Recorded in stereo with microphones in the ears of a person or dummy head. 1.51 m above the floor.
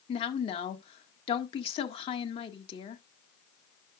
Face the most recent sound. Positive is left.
turn(degrees=30)  # may be behind; listen again after turning